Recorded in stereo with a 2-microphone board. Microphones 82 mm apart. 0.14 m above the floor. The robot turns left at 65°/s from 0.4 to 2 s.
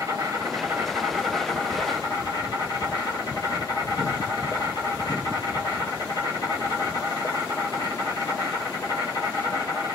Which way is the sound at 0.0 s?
125° right.